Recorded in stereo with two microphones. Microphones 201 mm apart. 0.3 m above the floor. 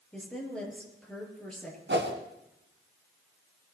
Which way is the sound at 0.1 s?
5° left (ahead or behind).